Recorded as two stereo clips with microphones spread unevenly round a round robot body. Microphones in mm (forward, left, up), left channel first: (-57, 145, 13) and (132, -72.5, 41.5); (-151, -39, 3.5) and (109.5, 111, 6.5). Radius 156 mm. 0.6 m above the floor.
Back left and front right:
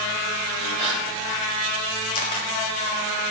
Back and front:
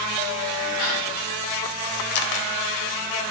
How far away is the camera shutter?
About 0.8 m.